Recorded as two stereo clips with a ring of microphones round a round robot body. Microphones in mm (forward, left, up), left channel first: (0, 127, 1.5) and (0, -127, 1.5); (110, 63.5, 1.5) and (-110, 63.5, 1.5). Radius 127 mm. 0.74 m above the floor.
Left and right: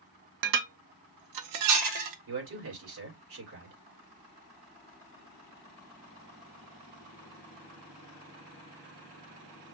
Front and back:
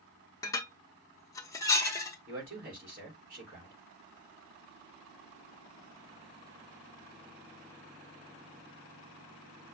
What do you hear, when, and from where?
0.4 s dishes clattering: 80° right, 0.8 m
2.3 s a man speaking: 125° right, 2.5 m